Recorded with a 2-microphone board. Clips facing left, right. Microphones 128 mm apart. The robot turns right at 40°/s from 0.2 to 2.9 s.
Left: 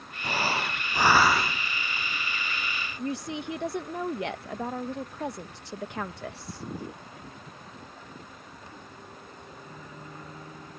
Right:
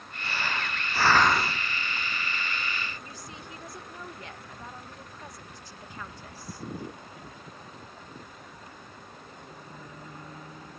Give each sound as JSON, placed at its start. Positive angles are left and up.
{"t": 0.2, "sound": "breathing", "azimuth_deg": 135}
{"t": 3.0, "sound": "a woman speaking", "side_deg": 75}